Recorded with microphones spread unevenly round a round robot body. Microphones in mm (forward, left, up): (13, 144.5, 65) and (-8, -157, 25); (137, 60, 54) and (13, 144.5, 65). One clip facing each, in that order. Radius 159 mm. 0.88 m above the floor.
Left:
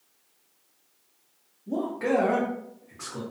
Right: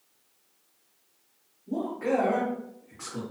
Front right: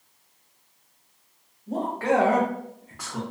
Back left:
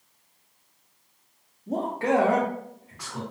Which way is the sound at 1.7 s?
100° left.